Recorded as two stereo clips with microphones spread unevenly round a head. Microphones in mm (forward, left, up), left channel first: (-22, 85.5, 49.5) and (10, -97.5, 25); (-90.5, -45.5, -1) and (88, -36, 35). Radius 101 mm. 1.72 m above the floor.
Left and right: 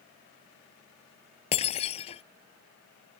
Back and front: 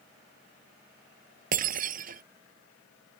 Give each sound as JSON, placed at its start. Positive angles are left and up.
{"t": 1.5, "sound": "breaking glass", "azimuth_deg": 45}